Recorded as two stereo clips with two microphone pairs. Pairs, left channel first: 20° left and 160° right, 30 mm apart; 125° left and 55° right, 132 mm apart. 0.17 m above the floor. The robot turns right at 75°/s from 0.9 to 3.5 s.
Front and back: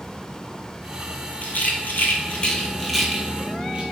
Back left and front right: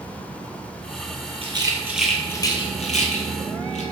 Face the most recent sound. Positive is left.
turn(degrees=145)